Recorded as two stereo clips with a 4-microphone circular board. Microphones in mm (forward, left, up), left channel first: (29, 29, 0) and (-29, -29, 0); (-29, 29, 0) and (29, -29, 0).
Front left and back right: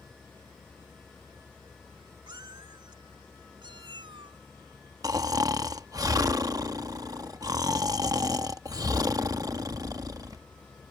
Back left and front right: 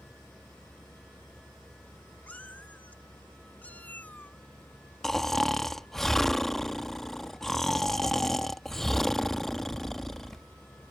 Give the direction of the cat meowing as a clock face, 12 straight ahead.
5 o'clock.